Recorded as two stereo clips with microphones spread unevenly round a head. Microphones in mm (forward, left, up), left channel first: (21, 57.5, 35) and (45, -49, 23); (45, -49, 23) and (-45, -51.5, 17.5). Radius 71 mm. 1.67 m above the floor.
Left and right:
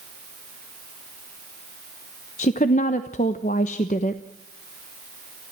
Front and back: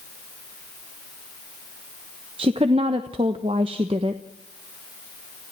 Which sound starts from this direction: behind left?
A woman speaking, at 2.4 s.